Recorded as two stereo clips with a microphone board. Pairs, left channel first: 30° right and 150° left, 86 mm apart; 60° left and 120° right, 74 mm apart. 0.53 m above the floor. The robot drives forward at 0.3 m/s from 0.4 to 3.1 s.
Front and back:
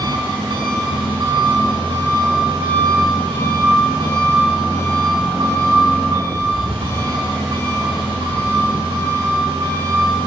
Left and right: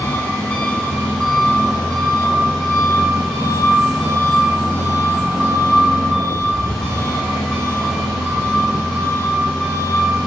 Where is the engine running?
135° left, 2.5 m; by 10.3 s 145° left, 3 m.